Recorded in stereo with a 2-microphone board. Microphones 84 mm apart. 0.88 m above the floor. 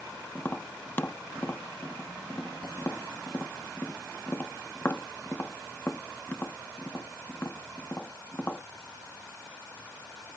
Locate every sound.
0.3 s tapping: 25° left (ahead or behind)